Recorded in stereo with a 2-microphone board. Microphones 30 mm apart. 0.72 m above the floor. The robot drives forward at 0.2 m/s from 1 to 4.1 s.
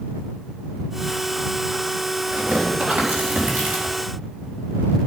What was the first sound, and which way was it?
Tearing paper, 75° right (ahead or behind).